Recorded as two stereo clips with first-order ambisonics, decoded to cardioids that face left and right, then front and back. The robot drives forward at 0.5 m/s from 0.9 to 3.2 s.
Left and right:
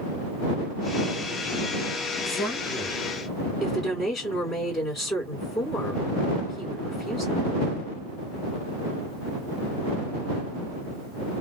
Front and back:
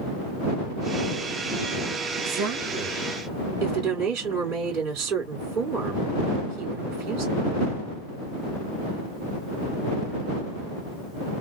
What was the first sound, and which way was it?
A woman speaking, 165° left.